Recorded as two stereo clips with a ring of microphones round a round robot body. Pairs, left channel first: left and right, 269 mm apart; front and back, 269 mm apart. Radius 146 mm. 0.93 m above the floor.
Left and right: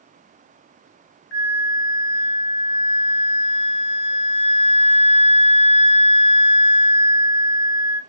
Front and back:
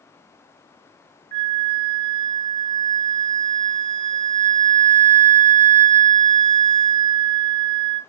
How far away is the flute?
About 0.9 m.